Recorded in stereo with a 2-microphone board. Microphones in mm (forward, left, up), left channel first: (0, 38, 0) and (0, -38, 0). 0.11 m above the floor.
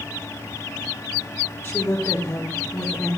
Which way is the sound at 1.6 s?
30° left (ahead or behind).